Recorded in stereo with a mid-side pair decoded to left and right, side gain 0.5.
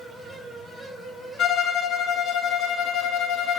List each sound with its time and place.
0.0 s a fan: 20° right, 2 m
1.4 s a violin: 65° left, 0.8 m